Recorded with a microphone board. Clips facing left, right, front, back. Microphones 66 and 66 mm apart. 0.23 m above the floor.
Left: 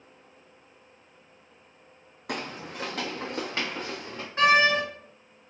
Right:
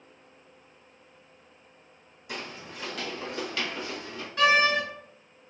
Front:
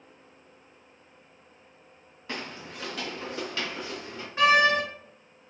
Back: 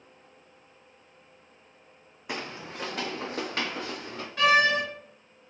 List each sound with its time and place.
2.3 s footsteps: 105° left, 0.5 m; by 4.3 s 145° left, 1.5 m
4.4 s a door slam: 55° left, 1.3 m